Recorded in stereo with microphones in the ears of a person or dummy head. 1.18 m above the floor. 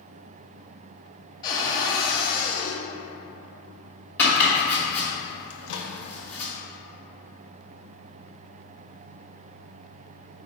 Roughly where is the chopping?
Centre.